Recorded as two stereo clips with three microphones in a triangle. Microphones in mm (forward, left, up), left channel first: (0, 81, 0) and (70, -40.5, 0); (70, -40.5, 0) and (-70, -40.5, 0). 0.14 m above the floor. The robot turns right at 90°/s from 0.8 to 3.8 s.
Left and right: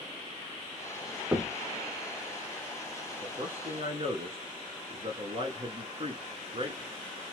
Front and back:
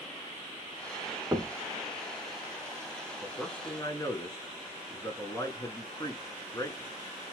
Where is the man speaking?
105° right, 1.9 m; by 6.9 s 50° right, 1.9 m.